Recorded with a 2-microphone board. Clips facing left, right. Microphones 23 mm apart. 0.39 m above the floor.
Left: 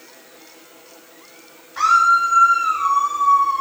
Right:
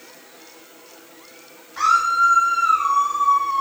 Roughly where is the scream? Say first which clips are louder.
Left 3 dB; centre.